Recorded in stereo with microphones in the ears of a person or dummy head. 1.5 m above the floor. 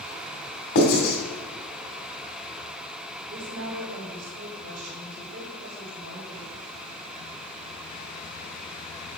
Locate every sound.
0.8 s writing: 55° left (ahead or behind), 2.5 m
3.3 s a woman speaking: 80° right, 4 m